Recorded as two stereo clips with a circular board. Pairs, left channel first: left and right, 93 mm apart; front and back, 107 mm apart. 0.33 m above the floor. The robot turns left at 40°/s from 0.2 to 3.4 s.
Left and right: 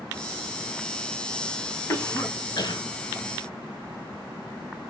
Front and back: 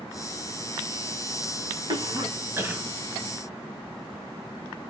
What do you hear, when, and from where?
1.9 s a cough: 145° left, 2.5 m; by 2.8 s 110° left, 2.5 m